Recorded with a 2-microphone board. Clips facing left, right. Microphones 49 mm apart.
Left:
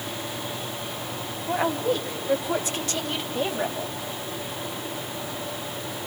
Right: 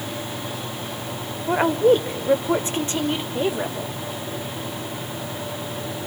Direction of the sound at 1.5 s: 50° right (ahead or behind).